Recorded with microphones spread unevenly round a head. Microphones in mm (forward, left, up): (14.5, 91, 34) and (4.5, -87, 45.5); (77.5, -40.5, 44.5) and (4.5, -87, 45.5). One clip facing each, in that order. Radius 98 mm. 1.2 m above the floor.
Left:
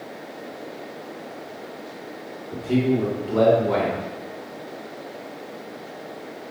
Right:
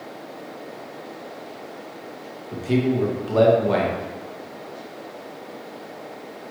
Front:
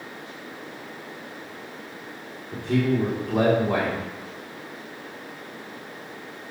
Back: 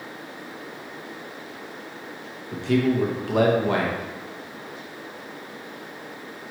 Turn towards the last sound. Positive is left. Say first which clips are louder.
# even, back 2 dB
turn(degrees=-135)